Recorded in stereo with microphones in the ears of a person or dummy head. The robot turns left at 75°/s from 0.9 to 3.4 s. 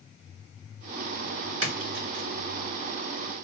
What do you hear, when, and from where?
1.6 s a splash: 65° right (ahead or behind), 1.9 m; by 2.2 s 20° right (ahead or behind), 1.9 m